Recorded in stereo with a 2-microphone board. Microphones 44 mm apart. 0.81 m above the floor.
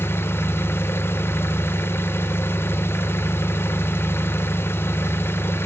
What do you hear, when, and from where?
0.0 s an engine running: 70° left (ahead or behind), 0.8 m